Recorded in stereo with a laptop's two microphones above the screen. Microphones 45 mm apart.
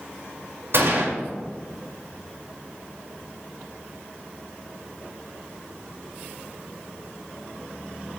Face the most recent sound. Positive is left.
turn(degrees=-65)  # may be behind; listen again after turning